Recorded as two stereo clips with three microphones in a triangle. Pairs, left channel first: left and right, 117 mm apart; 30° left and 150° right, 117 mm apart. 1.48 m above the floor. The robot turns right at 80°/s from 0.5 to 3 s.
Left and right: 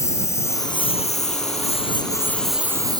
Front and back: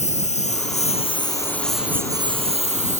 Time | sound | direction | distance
0.0 | a lawn mower | 25° left | ?